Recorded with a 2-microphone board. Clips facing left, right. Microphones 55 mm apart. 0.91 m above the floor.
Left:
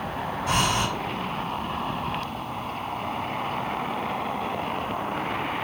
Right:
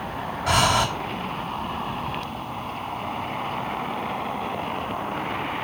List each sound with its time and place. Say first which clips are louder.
0.5 s breathing: right 4 dB; 85° right, 3 m